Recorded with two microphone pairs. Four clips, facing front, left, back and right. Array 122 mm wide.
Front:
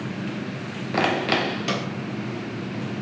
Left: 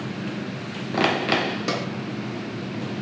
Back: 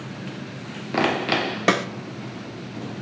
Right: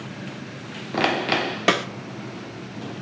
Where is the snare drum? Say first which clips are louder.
Right 10 dB, back 6 dB; 140° right, 0.5 m.